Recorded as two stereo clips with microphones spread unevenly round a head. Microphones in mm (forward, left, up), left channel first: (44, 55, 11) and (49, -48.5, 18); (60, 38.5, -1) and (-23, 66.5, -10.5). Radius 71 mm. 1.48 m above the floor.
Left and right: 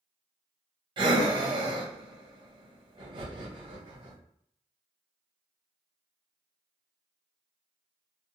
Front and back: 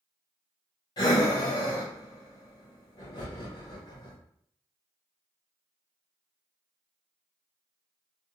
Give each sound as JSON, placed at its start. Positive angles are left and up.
{"t": 1.0, "sound": "breathing", "azimuth_deg": -60, "distance_m": 0.7}